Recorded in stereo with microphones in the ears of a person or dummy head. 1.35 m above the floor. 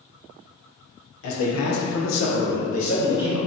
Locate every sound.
1.2 s a man speaking: 75° left (ahead or behind), 0.8 m; by 3.4 s 20° left (ahead or behind), 0.9 m